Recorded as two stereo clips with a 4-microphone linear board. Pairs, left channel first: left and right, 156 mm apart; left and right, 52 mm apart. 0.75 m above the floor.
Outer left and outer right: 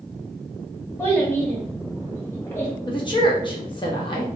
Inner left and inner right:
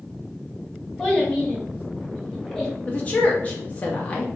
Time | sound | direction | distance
1.0 | a child speaking | 10° left (ahead or behind) | 1.7 m
2.9 | a woman speaking | 30° left (ahead or behind) | 0.8 m